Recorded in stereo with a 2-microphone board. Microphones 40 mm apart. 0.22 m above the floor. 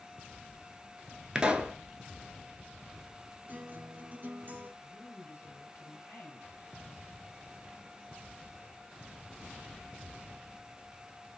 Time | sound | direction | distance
1.4 | a pop | 25° right (ahead or behind) | 0.6 m
3.5 | a guitar | 45° right (ahead or behind) | 0.7 m
4.8 | a woman speaking | 45° left (ahead or behind) | 1.9 m